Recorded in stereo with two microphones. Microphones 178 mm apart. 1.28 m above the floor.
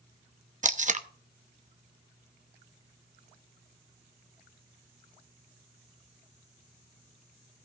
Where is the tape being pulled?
45° right (ahead or behind), 0.8 m.